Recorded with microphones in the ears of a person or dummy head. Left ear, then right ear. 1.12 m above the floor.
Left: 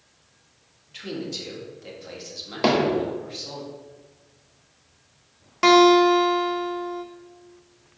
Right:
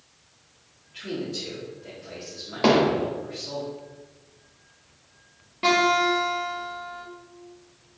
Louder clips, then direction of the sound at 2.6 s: Right 1 dB; 10° left (ahead or behind).